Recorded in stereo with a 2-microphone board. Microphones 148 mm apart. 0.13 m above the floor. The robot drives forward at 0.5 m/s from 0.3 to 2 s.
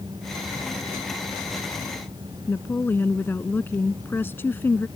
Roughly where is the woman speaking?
Centre.